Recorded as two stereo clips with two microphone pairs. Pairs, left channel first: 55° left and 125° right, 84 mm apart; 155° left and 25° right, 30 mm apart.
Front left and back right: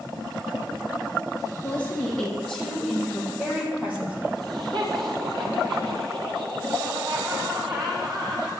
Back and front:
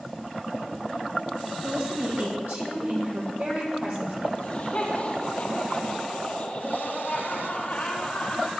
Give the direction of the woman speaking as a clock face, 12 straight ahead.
1 o'clock.